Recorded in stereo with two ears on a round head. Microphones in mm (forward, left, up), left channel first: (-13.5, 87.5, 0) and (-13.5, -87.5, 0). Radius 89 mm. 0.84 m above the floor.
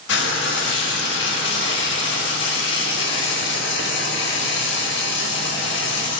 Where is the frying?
60° left (ahead or behind), 1.5 m.